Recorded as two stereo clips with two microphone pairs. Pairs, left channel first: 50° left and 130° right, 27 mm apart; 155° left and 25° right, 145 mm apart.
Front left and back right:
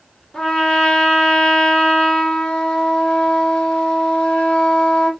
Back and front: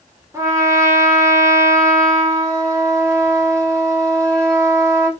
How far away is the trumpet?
About 1.2 m.